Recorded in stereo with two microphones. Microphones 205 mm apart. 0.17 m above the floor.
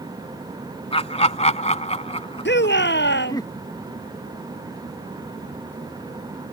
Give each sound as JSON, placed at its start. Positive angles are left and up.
{"t": 0.9, "sound": "laughter", "side_deg": 30}
{"t": 2.5, "sound": "a shout", "side_deg": 60}